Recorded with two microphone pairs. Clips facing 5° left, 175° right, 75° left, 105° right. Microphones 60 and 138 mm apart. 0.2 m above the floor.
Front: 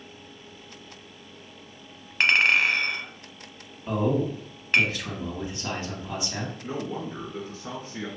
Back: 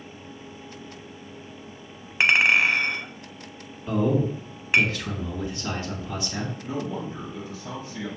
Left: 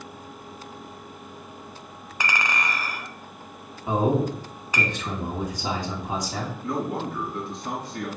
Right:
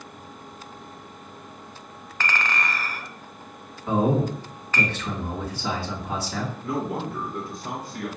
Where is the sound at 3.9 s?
35° left, 1.7 m.